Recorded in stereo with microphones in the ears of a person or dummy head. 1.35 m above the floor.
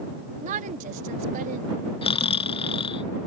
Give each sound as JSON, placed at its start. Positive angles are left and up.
{"t": 0.4, "sound": "a woman speaking", "side_deg": -50}
{"t": 2.0, "sound": "snoring", "side_deg": 35}